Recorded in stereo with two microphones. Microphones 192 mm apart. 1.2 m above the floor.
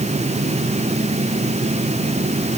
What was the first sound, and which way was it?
Only background noise.